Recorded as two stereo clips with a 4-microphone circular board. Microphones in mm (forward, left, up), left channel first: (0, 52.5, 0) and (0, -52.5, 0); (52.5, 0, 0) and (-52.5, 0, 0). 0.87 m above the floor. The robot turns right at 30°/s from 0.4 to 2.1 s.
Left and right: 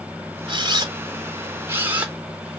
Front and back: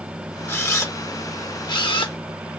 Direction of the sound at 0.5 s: 65° right.